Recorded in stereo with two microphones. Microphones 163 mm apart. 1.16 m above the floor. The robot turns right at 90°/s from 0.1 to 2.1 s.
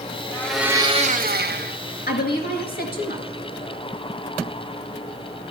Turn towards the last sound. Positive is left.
turn(degrees=70)  # may be behind; listen again after turning